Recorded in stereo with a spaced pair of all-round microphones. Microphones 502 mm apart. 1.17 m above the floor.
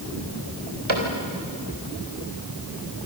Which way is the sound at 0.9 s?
80° right.